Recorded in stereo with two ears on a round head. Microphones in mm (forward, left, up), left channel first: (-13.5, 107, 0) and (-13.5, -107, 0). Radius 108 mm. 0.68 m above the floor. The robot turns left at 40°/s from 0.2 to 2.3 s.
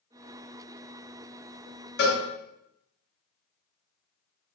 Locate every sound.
2.0 s a cowbell: 45° left (ahead or behind), 1.0 m; by 2.2 s 40° left (ahead or behind), 1.0 m